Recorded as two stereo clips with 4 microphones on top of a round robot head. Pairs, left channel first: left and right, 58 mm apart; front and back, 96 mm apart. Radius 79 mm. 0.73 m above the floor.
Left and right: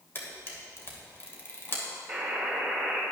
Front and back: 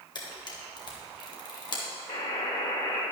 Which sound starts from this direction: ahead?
A buzzer, at 2.1 s.